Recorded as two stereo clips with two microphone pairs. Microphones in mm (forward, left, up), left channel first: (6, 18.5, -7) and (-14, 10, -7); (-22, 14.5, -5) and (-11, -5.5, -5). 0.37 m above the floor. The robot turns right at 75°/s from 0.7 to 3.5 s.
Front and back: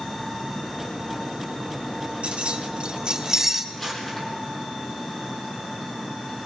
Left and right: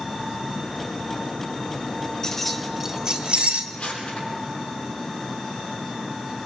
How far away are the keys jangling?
About 2.0 m.